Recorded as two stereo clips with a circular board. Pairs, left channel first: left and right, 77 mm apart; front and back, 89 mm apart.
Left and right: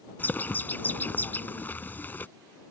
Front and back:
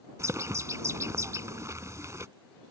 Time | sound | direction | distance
0.2 | a bird | 145° left | ?